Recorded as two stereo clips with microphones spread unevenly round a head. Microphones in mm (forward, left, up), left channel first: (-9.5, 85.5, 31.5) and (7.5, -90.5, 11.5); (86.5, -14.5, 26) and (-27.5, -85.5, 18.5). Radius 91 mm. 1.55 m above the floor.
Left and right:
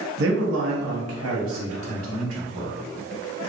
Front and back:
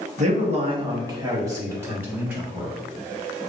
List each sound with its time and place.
0.2 s a man speaking: 115° right, 1.1 m; by 2.7 s 70° right, 3 m